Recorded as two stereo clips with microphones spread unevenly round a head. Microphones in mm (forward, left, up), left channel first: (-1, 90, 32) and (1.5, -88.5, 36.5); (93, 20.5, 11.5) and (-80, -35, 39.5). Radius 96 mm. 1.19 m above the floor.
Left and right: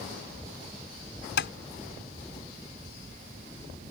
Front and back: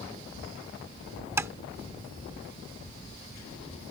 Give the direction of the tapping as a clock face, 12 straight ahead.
8 o'clock.